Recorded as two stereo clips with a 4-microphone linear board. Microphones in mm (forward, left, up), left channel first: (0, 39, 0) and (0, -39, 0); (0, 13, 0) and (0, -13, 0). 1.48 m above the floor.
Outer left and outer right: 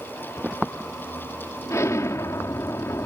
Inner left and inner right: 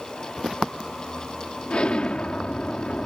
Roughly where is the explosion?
Left.